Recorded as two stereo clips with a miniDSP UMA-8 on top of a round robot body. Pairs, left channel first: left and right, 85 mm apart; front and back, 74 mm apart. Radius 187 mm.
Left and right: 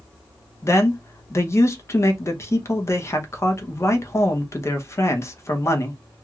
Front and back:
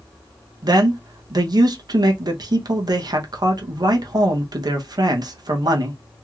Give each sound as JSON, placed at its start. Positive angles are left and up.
{"t": 0.6, "sound": "a man speaking", "azimuth_deg": 145, "distance_m": 0.9}